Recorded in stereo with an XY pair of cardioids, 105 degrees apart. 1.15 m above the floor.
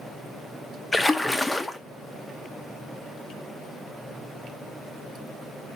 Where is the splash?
15° left, 1.2 m.